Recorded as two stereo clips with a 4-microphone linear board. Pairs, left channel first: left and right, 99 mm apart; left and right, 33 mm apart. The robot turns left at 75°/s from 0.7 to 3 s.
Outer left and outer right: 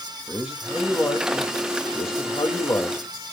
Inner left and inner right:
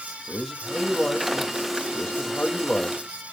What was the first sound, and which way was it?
A man speaking, 175° right.